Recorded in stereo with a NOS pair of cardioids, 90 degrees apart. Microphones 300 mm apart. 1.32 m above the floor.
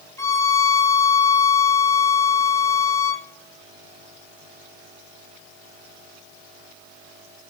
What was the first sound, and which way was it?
A violin, 10° left.